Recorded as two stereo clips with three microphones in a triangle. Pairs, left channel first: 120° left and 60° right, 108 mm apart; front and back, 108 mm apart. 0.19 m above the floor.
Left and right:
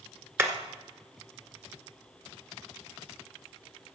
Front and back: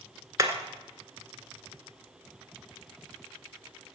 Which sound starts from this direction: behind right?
Hammering, at 0.4 s.